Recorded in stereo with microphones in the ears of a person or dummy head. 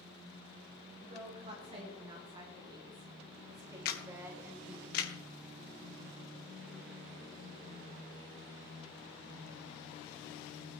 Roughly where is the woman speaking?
Right.